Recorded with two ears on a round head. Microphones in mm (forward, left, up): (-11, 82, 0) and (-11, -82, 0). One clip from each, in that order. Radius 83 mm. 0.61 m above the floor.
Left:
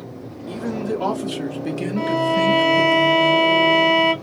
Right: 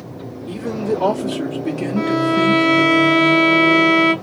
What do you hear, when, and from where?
0.5 s a man speaking: 15° left (ahead or behind), 1.4 m; by 3.0 s 35° left (ahead or behind), 1.1 m
2.0 s a violin: 10° left (ahead or behind), 0.8 m